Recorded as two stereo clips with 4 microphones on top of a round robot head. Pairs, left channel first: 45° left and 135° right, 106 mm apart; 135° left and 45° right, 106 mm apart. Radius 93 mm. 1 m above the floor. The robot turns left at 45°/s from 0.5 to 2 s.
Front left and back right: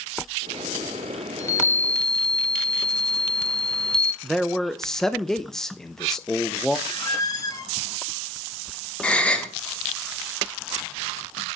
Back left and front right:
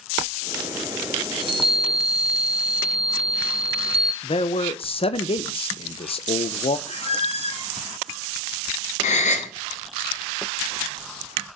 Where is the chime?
10° right, 1.3 m; by 4.1 s 40° right, 1.3 m.